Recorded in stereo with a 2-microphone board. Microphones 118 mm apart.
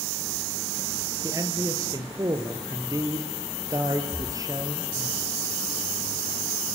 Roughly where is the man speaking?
Right.